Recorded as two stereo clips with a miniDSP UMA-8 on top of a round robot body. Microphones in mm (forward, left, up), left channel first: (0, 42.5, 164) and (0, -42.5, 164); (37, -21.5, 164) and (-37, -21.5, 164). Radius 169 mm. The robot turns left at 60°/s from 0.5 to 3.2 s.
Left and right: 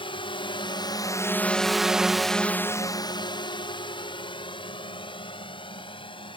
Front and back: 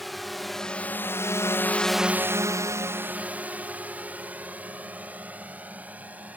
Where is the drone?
90° left; by 6.4 s 110° left.